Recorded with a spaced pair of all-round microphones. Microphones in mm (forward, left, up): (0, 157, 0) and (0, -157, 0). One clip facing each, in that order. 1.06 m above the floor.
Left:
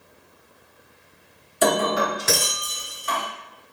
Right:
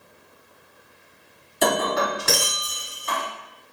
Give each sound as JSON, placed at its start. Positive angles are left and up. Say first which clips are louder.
{"t": 1.6, "sound": "breaking glass", "louder": "left 2 dB", "side_deg": 0, "distance_m": 1.2}